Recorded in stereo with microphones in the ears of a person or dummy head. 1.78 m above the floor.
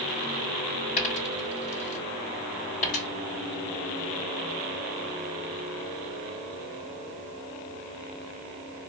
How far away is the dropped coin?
About 2.5 m.